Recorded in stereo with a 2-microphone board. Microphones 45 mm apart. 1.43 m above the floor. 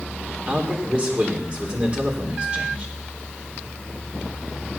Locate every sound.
0.5 s a man speaking: 25° right (ahead or behind), 4.5 m